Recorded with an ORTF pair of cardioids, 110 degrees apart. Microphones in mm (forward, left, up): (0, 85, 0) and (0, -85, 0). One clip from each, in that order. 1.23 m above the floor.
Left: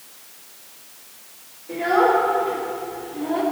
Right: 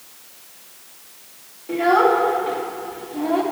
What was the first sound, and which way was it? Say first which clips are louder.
A child speaking: right 2 dB; 45° right.